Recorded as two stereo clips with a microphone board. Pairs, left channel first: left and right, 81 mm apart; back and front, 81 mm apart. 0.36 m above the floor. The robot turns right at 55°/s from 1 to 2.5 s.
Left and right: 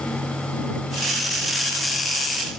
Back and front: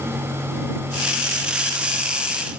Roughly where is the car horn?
No car horn in this recording.